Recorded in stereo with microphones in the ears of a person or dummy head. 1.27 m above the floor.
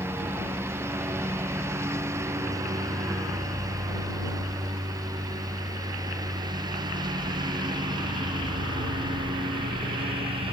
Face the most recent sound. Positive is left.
turn(degrees=-25)  # may be behind; listen again after turning